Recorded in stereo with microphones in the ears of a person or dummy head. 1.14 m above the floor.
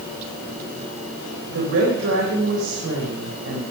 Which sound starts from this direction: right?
A woman speaking, at 1.5 s.